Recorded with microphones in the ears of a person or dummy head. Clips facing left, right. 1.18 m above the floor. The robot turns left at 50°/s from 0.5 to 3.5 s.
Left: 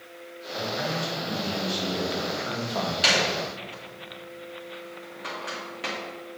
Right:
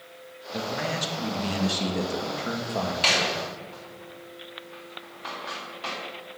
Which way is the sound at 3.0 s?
10° left (ahead or behind).